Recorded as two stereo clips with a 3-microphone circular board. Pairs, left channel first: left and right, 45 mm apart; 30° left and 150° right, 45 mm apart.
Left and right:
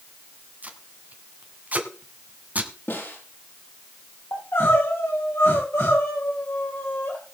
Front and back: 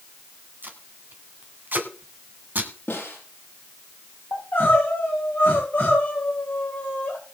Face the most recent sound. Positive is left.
turn(degrees=75)